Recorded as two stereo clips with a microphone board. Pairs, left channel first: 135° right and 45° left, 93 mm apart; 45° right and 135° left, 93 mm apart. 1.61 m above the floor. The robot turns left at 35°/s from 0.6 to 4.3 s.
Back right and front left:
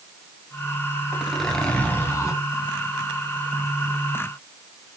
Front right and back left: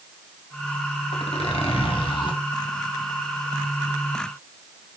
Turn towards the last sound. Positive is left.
turn(degrees=-150)